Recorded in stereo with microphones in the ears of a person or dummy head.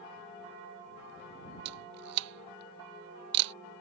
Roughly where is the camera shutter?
Right.